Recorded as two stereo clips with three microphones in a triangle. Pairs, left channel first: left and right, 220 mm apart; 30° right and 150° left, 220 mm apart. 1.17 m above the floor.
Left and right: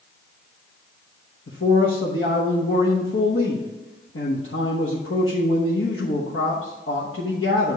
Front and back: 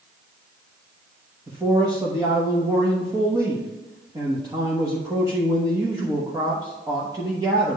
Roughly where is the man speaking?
Left.